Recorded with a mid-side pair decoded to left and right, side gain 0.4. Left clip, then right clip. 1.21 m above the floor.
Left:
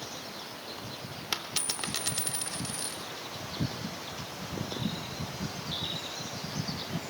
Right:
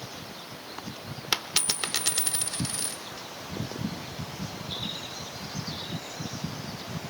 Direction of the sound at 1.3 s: 45° right.